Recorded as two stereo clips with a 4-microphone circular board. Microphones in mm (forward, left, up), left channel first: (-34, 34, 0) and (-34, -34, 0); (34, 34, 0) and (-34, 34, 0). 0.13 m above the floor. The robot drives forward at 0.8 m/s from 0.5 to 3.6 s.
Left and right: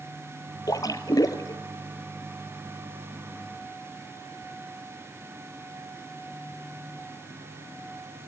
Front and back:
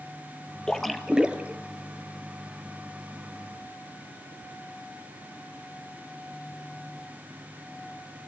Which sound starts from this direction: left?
A splash, at 0.7 s.